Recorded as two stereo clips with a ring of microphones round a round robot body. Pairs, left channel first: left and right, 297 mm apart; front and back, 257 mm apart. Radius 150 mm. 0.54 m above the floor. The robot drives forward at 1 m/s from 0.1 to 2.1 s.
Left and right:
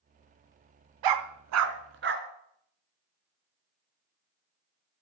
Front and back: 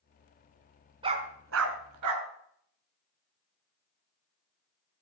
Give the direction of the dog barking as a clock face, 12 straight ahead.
4 o'clock.